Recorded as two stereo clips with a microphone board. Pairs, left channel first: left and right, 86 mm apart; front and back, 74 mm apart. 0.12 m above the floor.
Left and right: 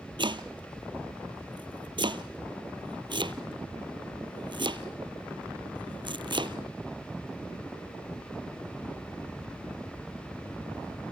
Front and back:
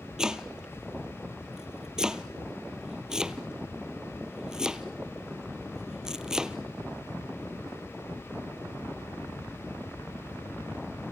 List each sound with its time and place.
0.2 s chopping: 100° right, 0.9 m